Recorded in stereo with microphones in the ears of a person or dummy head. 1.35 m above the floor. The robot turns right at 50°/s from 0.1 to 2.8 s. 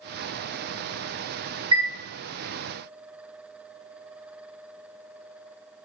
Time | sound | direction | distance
1.7 | a chime | 20° right (ahead or behind) | 1.4 m